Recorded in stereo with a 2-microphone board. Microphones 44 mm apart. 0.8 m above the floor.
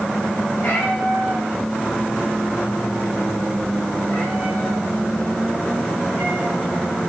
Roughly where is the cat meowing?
Left.